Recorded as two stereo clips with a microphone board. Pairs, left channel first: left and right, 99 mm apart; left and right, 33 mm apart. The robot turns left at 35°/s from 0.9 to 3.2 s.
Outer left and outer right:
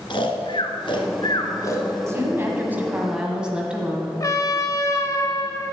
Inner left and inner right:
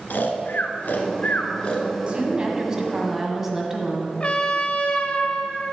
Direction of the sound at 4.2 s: 35° left (ahead or behind).